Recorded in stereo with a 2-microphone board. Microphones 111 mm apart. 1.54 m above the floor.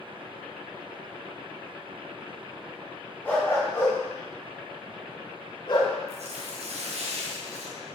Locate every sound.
3.2 s a dog barking: 15° left (ahead or behind), 3 m; by 6.0 s 45° left (ahead or behind), 2 m
6.1 s tearing paper: 75° right (ahead or behind), 1.4 m